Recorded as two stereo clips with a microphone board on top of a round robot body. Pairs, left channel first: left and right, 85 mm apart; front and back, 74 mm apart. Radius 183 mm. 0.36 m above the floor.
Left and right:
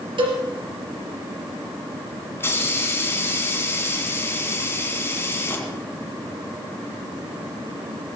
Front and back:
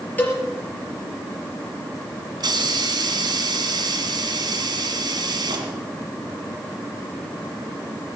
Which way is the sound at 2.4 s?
150° left.